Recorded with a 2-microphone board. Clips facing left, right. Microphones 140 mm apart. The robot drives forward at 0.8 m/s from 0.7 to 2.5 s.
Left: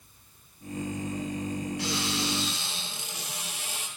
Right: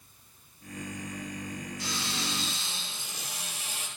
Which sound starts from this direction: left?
A cupboard door, at 1.8 s.